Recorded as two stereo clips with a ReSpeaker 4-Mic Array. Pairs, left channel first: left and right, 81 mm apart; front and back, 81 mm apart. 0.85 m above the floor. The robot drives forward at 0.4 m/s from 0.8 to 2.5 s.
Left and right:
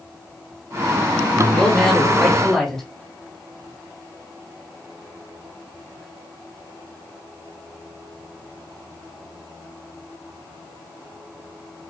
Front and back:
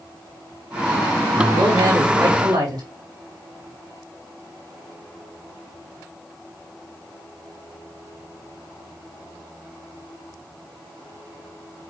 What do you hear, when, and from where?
1.5 s a man speaking: 175° left, 1.6 m